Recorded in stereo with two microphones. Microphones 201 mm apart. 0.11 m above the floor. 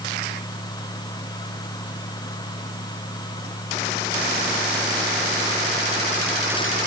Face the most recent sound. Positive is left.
No sound to turn to.